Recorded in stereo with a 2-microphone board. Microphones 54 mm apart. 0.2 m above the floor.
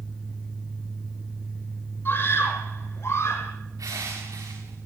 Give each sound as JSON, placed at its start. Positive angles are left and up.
{"t": 2.0, "sound": "a scream", "side_deg": 45, "distance_m": 7.0}
{"t": 3.8, "sound": "crushing", "side_deg": -85, "distance_m": 8.5}